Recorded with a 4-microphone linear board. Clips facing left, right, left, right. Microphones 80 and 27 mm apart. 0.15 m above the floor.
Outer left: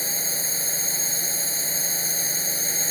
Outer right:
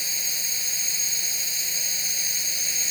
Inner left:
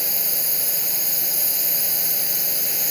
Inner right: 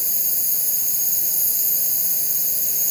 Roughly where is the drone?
Left.